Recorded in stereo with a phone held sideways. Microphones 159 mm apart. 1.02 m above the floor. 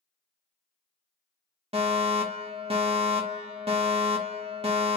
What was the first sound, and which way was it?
A fire alarm, 40° right (ahead or behind).